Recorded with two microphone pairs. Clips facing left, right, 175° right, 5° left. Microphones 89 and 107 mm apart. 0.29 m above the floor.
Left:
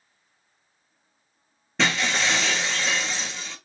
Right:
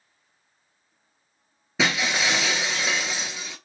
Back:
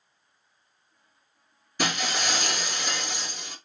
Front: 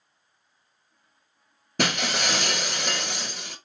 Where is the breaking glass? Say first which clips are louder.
Even, front 2 dB; 5° right, 0.8 m.